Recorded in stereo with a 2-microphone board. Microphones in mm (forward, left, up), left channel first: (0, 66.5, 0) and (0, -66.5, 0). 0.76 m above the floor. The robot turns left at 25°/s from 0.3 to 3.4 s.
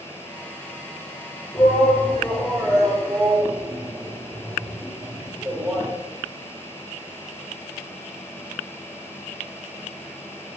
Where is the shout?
30° left (ahead or behind), 3 m; by 5.9 s 15° right (ahead or behind), 3 m.